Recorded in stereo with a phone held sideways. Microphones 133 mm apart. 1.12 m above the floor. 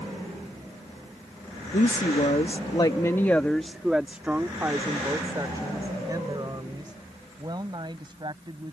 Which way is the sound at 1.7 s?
80° left.